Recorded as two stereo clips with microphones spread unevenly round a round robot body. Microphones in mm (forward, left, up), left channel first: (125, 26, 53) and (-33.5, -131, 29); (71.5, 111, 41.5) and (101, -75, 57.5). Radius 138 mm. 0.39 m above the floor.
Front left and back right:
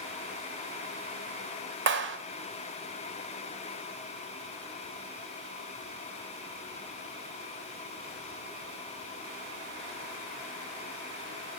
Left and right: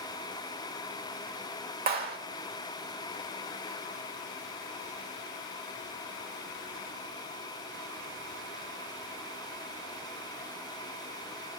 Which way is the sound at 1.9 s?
120° right.